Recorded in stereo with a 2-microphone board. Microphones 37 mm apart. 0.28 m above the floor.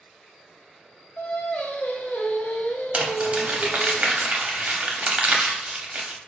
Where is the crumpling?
40° right (ahead or behind), 0.7 m.